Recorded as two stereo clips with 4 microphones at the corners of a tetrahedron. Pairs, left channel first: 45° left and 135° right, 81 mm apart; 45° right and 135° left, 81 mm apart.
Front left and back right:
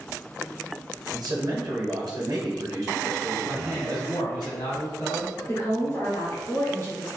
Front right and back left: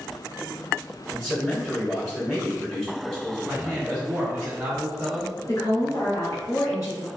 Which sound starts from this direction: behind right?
A man speaking, at 1.1 s.